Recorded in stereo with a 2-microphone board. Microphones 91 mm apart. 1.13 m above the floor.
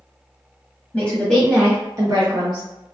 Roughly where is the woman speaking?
Centre.